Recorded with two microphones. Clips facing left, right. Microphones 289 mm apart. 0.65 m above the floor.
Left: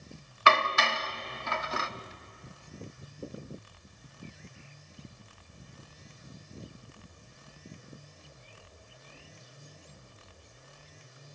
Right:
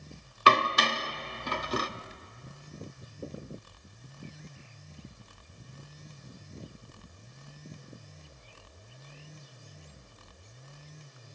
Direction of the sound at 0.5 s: 40° right (ahead or behind).